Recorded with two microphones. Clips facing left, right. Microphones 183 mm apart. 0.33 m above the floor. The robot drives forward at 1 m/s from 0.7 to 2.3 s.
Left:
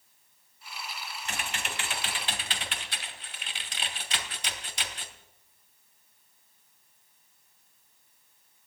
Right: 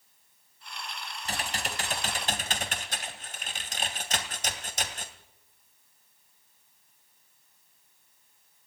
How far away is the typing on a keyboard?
About 3 m.